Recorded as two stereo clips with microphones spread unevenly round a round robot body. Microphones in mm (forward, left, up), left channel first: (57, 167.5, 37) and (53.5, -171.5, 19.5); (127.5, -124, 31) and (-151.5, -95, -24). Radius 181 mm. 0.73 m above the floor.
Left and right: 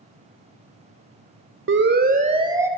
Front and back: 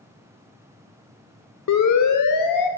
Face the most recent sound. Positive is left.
turn(degrees=-5)